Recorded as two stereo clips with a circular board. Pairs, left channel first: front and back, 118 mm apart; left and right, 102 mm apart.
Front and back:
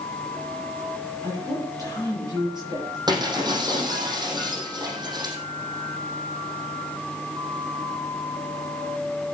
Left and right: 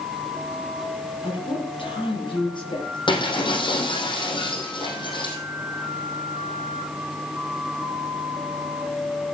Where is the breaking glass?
125° left, 4.5 m.